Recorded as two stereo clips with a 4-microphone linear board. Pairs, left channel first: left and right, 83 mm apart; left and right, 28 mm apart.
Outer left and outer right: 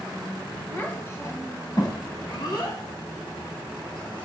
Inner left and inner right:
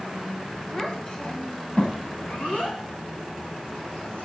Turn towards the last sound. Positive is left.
turn(degrees=70)  # may be behind; listen again after turning